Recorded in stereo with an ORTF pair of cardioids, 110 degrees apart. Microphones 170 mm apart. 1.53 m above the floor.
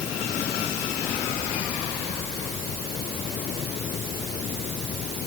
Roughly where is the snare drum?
I don't hear a snare drum.